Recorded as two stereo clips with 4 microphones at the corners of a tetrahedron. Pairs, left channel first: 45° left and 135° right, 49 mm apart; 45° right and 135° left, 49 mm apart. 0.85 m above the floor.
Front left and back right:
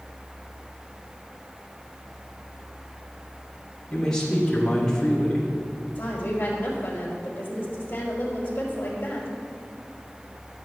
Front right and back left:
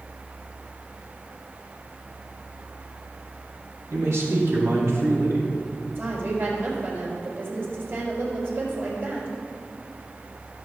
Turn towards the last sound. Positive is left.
turn(degrees=95)